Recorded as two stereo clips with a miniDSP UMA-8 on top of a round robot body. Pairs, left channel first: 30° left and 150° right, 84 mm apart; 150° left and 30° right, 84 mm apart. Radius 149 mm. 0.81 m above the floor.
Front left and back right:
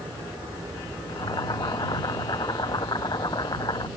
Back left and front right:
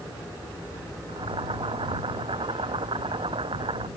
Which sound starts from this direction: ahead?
Boiling, at 1.1 s.